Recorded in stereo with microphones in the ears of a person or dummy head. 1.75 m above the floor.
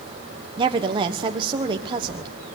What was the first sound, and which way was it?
A woman speaking, 30° right (ahead or behind).